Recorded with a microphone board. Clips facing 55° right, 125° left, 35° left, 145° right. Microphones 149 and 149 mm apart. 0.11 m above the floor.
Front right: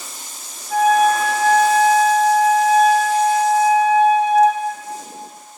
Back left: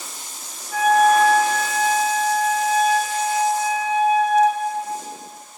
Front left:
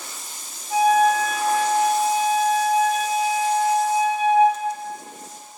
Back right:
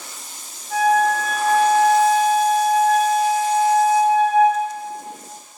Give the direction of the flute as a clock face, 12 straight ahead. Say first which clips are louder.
Front right 1 dB, even; 1 o'clock.